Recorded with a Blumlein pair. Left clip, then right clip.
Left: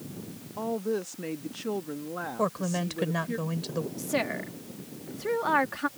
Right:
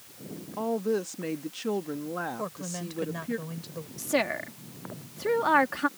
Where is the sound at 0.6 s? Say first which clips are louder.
Right 2 dB; 5° right.